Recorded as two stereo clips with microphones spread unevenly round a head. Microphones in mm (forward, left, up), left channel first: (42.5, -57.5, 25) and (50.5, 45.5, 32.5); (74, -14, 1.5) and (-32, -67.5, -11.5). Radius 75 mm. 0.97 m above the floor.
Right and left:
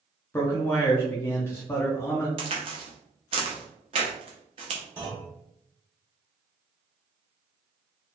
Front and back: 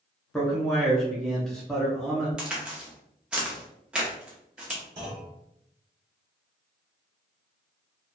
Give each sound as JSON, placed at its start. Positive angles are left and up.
{"t": 0.3, "sound": "a man speaking", "azimuth_deg": -70, "distance_m": 0.7}
{"t": 2.4, "sound": "a crack", "azimuth_deg": 120, "distance_m": 0.6}
{"t": 5.0, "sound": "a clunk", "azimuth_deg": 160, "distance_m": 1.1}